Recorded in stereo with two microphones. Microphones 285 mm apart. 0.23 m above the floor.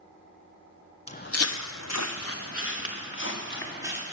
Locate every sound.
1.1 s footsteps: 20° left (ahead or behind), 0.7 m; by 4.0 s 40° left (ahead or behind), 4 m